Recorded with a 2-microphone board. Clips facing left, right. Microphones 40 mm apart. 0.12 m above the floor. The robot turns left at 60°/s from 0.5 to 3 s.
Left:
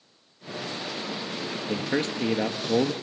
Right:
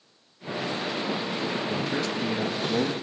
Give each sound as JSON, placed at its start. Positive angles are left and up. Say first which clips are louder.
{"t": 1.7, "sound": "a man speaking", "louder": "even", "azimuth_deg": 140, "distance_m": 3.0}